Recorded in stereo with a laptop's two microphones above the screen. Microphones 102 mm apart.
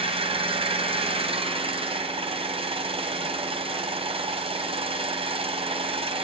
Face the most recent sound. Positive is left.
turn(degrees=-70)  # may be behind; listen again after turning